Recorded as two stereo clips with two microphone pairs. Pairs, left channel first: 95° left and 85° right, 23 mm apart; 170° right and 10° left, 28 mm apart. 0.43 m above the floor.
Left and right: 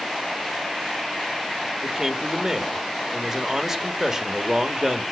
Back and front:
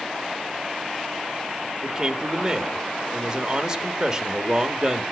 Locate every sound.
1.8 s a man speaking: 35° right, 1.6 m